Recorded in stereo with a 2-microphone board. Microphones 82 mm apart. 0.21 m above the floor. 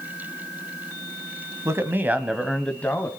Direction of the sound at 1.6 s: 35° right (ahead or behind).